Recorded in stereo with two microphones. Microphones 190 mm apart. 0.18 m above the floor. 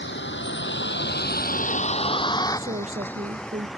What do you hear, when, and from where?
0.0 s a vehicle: 75° left (ahead or behind); by 3.8 s centre (ahead or behind)
2.6 s a woman speaking: 40° right (ahead or behind)